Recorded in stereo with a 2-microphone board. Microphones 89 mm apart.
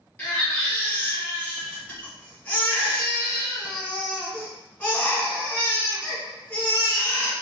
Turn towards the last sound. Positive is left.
turn(degrees=20)  # may be behind; listen again after turning